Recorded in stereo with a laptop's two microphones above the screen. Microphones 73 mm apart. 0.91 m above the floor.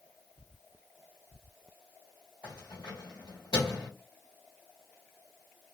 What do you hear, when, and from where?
2.4 s keys jangling: 75° left (ahead or behind), 1.4 m